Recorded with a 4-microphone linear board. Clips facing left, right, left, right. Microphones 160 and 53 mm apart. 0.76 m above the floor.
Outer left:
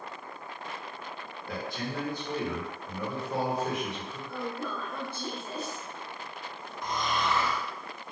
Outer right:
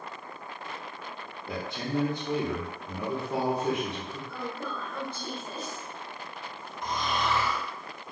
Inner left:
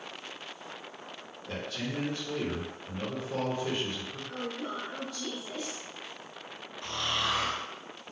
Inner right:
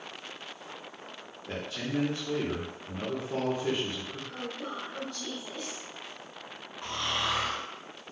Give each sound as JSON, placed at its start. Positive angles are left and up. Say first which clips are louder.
{"t": 1.5, "sound": "a man speaking", "louder": "outer right 3 dB, inner right 2 dB", "side_deg": -20, "distance_m": 0.8}
{"t": 4.3, "sound": "a woman speaking", "louder": "outer left 3 dB, inner left 3 dB", "side_deg": 10, "distance_m": 0.7}
{"t": 6.8, "sound": "snoring", "louder": "even, even", "side_deg": -25, "distance_m": 1.4}